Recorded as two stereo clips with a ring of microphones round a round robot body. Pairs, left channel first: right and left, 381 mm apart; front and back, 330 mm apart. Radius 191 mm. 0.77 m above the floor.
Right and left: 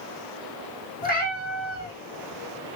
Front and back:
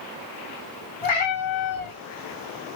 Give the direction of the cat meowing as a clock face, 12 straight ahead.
1 o'clock.